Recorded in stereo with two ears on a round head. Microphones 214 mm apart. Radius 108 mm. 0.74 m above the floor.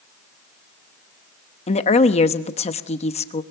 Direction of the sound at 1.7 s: 30° left (ahead or behind).